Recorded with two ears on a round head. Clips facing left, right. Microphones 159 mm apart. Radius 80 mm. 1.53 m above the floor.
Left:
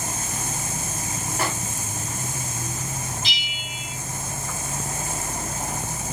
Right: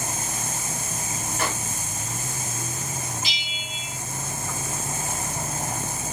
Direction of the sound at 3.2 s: 10° right (ahead or behind).